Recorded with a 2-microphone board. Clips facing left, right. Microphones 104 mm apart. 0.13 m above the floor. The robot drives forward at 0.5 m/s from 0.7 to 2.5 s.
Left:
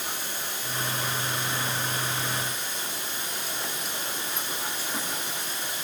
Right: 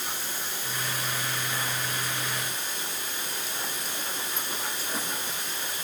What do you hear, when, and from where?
0.0 s running water: 20° left (ahead or behind), 5.5 m